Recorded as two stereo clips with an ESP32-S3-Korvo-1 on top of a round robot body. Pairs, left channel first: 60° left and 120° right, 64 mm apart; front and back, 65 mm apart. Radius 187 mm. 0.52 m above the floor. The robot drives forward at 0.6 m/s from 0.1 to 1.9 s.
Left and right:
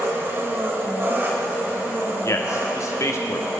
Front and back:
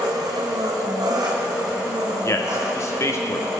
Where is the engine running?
175° right, 1.5 m; by 3.6 s straight behind, 2.5 m.